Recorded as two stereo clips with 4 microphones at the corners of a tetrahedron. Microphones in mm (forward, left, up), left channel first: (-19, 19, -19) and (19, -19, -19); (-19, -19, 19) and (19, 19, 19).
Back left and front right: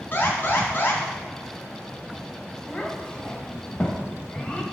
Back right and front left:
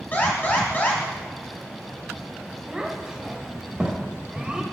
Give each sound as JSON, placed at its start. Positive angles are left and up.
{"t": 0.1, "sound": "an alarm", "azimuth_deg": 175, "distance_m": 1.5}
{"t": 2.7, "sound": "a child speaking", "azimuth_deg": 100, "distance_m": 0.8}